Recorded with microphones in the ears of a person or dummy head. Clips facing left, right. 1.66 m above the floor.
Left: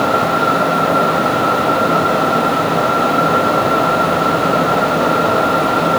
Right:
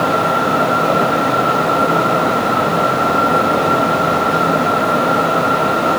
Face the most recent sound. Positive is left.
No sound to turn to.